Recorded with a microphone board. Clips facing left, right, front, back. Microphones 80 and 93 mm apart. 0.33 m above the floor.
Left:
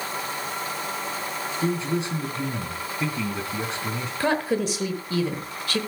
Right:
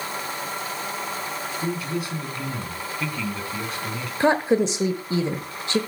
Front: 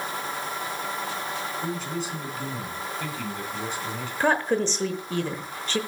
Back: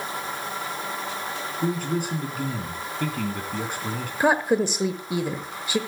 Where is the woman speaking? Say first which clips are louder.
Right 5 dB, back 2 dB; 115° right, 1.0 m.